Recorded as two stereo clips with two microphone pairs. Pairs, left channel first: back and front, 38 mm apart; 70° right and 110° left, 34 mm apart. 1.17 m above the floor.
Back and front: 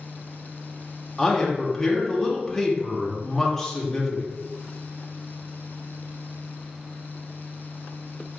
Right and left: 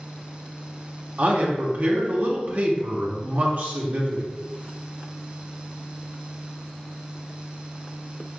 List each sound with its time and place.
1.2 s a man speaking: 100° left, 1.0 m